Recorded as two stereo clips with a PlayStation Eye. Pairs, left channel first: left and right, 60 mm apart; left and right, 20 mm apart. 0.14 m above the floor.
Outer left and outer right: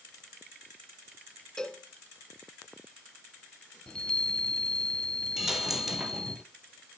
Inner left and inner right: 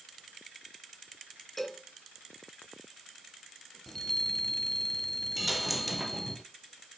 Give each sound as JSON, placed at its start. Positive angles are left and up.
{"t": 1.6, "sound": "a cowbell", "side_deg": 15, "distance_m": 1.6}
{"t": 3.9, "sound": "a chime", "side_deg": 15, "distance_m": 0.9}
{"t": 5.4, "sound": "a dropped coin", "side_deg": -5, "distance_m": 1.4}